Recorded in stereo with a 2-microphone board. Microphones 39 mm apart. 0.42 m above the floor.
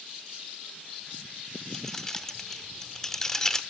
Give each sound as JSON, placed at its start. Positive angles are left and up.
{"t": 1.7, "sound": "keys jangling", "side_deg": 10, "distance_m": 0.5}